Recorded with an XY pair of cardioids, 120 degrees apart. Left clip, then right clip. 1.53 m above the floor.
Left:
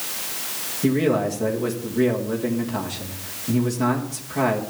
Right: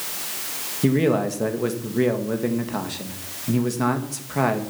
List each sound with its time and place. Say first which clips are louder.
0.8 s a man speaking: even; 30° right, 2.0 m